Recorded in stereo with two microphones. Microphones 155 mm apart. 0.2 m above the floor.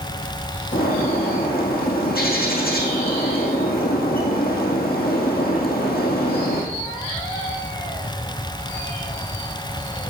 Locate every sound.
0.7 s a bird: 75° left (ahead or behind), 2.5 m